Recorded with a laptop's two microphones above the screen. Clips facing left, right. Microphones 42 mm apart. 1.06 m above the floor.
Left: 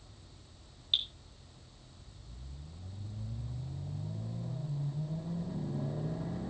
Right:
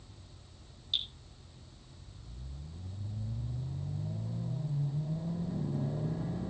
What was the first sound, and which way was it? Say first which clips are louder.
Dripping: left 2 dB; 40° left (ahead or behind).